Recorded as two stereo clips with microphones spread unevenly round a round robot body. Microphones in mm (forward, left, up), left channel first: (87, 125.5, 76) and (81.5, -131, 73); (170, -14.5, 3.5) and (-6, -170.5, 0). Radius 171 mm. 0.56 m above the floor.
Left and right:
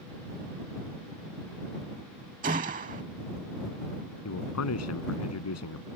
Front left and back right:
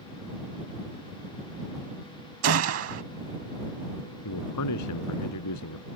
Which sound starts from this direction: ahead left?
A man speaking, at 4.2 s.